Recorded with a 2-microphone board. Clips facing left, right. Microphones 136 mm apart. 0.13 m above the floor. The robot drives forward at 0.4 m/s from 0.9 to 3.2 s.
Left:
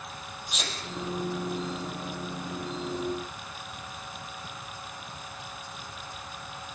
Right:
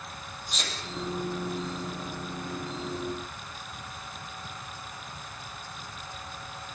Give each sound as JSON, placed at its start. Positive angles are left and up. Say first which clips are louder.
{"t": 0.5, "sound": "a sneeze", "louder": "left 1 dB", "side_deg": 5, "distance_m": 5.0}